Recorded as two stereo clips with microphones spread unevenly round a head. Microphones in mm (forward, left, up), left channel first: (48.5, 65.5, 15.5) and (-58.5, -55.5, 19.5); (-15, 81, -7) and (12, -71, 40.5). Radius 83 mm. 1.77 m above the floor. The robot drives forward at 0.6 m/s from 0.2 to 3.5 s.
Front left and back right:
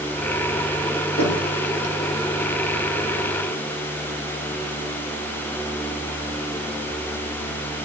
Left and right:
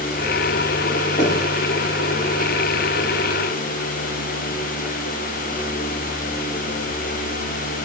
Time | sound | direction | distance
1.2 | knocking | 45° left | 4 m